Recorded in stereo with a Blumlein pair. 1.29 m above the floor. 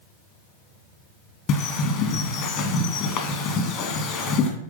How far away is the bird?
About 2.5 m.